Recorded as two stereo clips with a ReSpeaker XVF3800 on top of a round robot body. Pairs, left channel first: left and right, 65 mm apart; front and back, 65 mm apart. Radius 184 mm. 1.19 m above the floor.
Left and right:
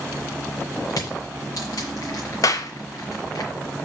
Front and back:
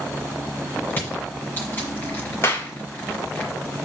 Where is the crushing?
65° left, 1.6 m.